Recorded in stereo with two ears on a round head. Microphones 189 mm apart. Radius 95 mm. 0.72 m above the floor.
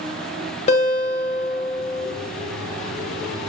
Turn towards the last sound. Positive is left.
turn(degrees=35)  # may be behind; listen again after turning